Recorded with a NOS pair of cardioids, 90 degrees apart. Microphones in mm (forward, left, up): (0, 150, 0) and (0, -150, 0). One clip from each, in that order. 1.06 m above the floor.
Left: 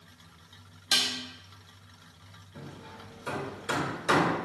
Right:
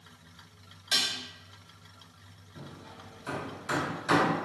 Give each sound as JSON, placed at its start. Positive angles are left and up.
{"t": 0.9, "sound": "dishes clattering", "azimuth_deg": 30, "distance_m": 1.2}
{"t": 2.5, "sound": "hammering", "azimuth_deg": 30, "distance_m": 1.7}